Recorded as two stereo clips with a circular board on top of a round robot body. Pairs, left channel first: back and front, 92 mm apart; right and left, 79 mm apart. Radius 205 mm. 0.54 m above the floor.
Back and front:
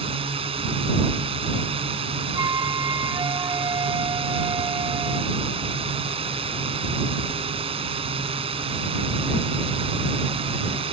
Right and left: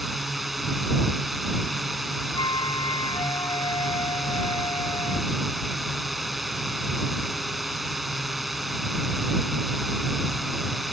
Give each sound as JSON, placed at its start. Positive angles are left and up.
{"t": 0.0, "sound": "a drone", "azimuth_deg": 0}
{"t": 2.4, "sound": "a flute", "azimuth_deg": -50}